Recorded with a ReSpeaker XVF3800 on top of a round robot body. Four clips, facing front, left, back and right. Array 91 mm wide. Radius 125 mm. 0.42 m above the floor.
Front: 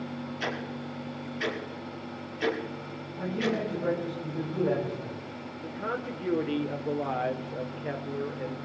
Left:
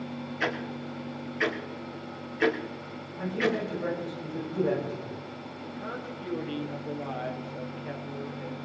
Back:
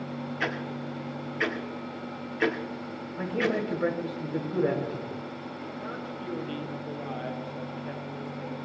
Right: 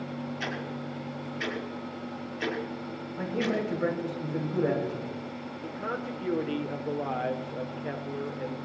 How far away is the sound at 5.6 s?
About 1.7 m.